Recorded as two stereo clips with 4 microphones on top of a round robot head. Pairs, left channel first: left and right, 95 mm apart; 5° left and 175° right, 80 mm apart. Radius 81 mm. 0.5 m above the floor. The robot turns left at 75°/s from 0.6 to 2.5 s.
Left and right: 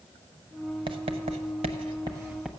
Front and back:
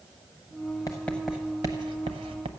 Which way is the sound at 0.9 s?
55° right.